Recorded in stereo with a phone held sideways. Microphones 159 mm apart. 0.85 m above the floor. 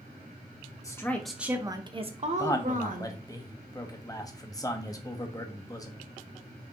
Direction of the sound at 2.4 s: 20° left (ahead or behind).